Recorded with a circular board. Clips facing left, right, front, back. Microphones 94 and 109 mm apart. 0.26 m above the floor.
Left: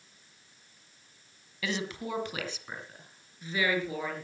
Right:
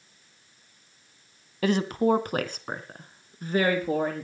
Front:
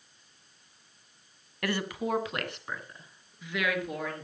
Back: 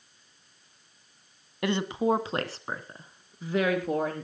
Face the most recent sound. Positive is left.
turn(degrees=-130)